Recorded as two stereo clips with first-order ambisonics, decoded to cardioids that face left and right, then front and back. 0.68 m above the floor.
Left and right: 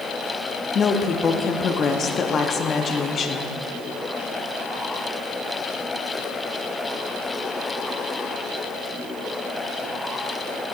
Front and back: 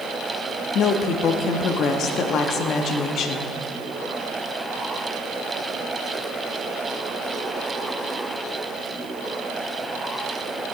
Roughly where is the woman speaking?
Ahead left.